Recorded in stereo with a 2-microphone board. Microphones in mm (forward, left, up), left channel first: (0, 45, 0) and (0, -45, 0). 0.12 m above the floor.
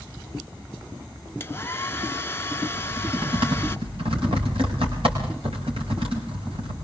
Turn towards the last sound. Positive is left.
turn(degrees=-80)